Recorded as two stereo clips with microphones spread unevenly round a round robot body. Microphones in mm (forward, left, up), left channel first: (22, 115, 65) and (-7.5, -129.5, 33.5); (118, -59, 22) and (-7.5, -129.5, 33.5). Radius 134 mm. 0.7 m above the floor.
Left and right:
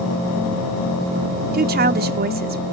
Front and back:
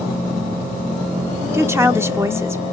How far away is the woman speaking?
About 0.6 m.